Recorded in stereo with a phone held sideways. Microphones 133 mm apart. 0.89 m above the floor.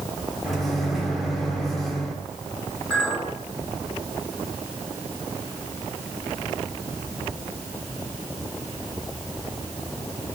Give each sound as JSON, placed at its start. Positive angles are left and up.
{"t": 0.4, "sound": "a microwave", "side_deg": 0, "distance_m": 2.5}
{"t": 2.9, "sound": "a clink", "side_deg": 10, "distance_m": 7.0}